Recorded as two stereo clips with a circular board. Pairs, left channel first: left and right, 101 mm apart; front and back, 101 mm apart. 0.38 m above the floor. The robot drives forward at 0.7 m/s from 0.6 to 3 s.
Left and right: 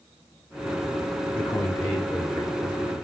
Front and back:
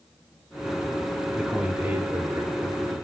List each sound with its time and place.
1.3 s a man speaking: 85° left, 0.8 m; by 3.0 s 165° left, 1.4 m